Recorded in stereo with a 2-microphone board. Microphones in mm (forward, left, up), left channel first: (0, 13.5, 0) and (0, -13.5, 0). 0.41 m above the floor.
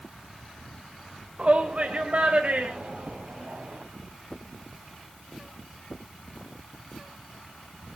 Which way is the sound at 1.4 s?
45° right (ahead or behind).